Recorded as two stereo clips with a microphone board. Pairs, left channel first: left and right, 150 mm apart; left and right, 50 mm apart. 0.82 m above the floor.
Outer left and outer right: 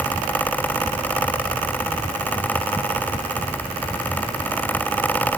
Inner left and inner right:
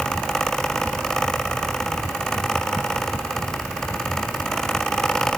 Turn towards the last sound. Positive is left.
No sound to turn to.